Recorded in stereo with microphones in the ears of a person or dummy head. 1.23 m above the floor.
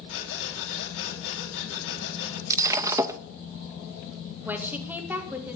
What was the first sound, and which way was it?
Breathing, 85° left.